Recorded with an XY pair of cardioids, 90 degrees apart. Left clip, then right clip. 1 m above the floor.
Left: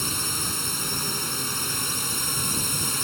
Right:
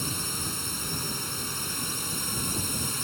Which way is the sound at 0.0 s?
40° left.